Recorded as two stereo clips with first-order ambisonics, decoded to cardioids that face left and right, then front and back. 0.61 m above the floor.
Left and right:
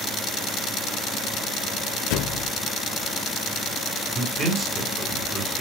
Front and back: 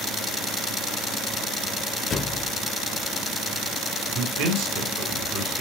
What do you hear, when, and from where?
2.1 s a thud: 70° left, 0.8 m
4.2 s a man speaking: 160° right, 2 m